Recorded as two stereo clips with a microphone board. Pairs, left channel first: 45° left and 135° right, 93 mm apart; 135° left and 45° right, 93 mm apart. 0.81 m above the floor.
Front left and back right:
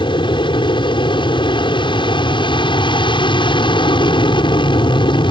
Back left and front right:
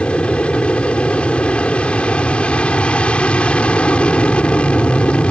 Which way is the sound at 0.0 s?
60° left.